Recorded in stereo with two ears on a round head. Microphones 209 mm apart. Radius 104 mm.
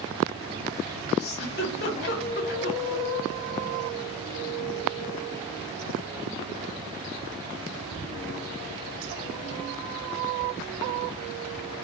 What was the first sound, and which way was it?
A giggle, 45° left (ahead or behind).